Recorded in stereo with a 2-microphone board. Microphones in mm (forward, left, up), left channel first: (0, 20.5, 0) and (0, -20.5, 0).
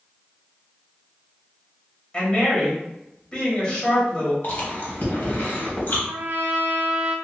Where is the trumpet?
65° right (ahead or behind), 0.6 m.